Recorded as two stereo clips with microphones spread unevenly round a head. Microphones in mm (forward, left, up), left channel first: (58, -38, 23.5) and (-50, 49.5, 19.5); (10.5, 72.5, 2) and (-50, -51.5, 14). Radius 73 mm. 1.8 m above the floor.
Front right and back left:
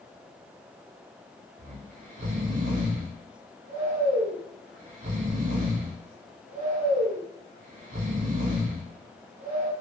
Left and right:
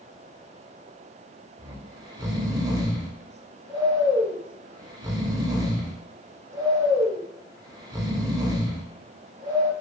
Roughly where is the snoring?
Behind.